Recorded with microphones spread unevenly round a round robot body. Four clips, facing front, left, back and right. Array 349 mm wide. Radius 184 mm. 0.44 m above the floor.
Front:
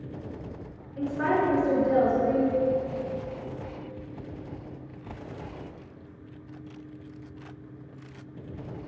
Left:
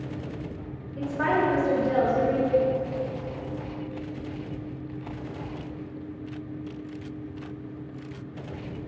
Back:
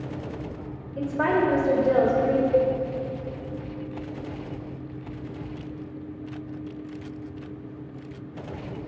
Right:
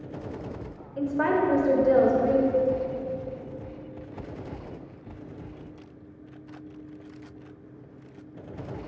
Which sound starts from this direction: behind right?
A woman speaking, at 1.0 s.